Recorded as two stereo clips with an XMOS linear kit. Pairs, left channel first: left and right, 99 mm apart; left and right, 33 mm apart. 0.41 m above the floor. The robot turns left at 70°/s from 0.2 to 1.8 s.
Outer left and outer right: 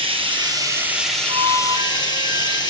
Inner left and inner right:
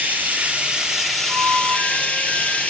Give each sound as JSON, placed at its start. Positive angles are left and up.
{"t": 0.0, "sound": "running water", "azimuth_deg": -115, "distance_m": 4.0}
{"t": 1.3, "sound": "a flute", "azimuth_deg": -135, "distance_m": 1.9}